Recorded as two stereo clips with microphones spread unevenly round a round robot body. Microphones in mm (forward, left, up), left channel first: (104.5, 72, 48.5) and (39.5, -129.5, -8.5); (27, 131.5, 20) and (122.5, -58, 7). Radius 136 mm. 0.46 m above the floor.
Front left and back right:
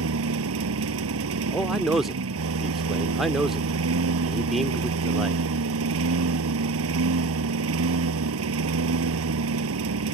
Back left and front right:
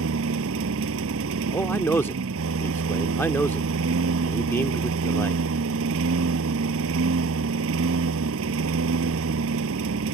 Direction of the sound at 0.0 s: 105° right.